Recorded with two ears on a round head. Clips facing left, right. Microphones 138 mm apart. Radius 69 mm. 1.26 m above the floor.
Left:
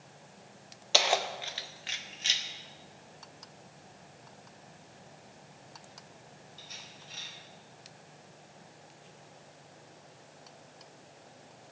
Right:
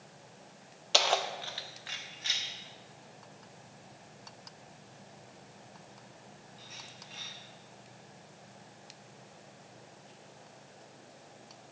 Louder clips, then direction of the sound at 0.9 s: Left 1 dB; 5° left (ahead or behind).